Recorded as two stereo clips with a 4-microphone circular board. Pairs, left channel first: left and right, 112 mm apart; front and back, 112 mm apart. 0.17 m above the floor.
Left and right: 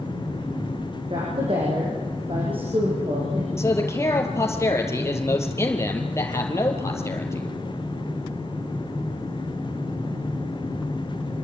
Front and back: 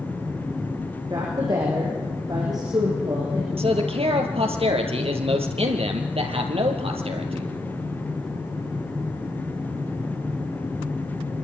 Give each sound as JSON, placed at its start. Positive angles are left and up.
{"t": 1.1, "sound": "a woman speaking", "azimuth_deg": -125, "distance_m": 8.0}
{"t": 3.6, "sound": "a man speaking", "azimuth_deg": 155, "distance_m": 4.0}